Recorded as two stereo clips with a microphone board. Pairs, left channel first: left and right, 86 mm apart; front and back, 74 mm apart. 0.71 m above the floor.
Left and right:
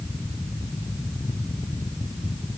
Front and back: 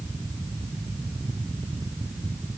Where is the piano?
No piano in this recording.